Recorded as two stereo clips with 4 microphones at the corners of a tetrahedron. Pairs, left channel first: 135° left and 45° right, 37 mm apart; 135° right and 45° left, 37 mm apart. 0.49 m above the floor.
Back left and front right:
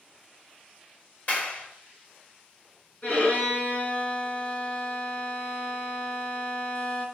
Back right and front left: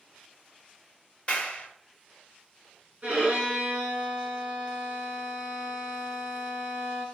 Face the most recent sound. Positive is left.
turn(degrees=100)